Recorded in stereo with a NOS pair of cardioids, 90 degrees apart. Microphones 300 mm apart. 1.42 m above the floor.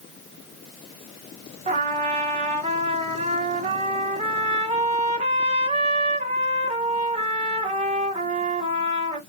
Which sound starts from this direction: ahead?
A trumpet, at 1.7 s.